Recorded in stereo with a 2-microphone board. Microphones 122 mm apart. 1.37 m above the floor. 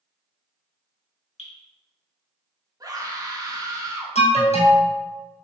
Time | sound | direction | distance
1.4 | dripping | 70° left (ahead or behind) | 3 m
2.8 | a scream | 35° right (ahead or behind) | 2 m
4.2 | an alarm | 65° left (ahead or behind) | 1.5 m